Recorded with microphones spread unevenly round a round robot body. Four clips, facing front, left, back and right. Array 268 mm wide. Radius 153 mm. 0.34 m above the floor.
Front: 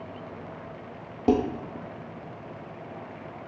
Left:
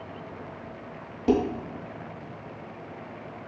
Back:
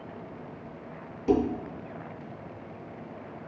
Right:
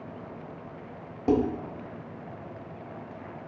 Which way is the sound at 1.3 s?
Straight ahead.